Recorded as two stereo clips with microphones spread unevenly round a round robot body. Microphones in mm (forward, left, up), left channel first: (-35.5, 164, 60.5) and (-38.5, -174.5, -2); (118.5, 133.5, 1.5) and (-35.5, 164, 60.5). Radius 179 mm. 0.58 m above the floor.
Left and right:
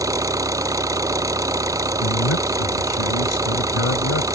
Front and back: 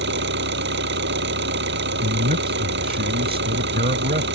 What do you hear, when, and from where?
0.0 s an engine running: 170° right
2.0 s a man speaking: 140° left